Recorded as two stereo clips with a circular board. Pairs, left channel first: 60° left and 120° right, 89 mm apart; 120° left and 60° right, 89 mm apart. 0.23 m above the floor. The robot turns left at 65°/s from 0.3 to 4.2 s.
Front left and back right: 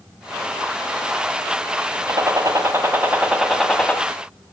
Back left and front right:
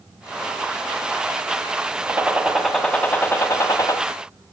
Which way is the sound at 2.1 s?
110° right.